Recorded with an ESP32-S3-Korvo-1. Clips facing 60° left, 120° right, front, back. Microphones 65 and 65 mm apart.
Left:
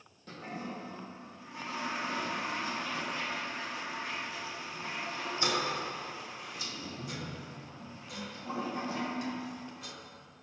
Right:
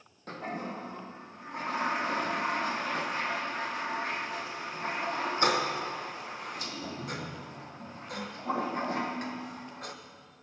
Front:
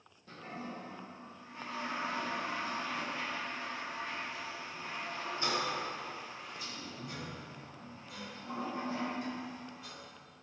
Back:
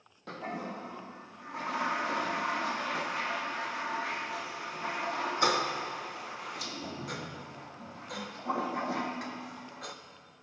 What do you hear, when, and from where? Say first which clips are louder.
0.3 s a toilet flushing: right 4 dB, back 6 dB; 160° right, 1.0 m